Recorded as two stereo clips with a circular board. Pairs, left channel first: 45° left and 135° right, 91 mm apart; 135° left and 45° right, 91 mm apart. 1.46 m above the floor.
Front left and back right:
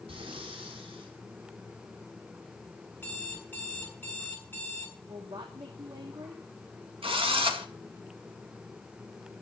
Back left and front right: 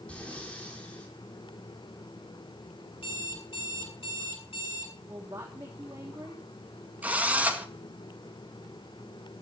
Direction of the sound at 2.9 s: 115° left.